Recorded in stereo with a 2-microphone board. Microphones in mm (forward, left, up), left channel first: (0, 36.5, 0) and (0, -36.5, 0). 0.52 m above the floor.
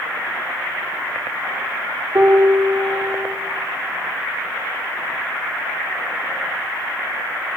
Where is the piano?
55° right (ahead or behind), 0.5 m.